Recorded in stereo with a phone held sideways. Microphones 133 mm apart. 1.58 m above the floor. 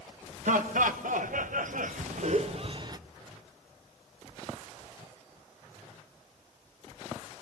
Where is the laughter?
75° right (ahead or behind), 1.8 m; by 3.0 s 30° right (ahead or behind), 0.9 m.